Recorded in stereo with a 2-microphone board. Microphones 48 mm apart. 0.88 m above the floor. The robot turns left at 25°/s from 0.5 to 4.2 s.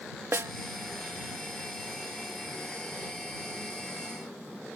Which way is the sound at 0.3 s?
60° right (ahead or behind).